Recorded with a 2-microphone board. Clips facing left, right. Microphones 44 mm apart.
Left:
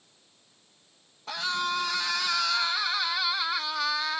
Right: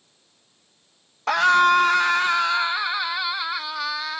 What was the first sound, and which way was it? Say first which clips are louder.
A scream: right 14 dB; 70° right (ahead or behind).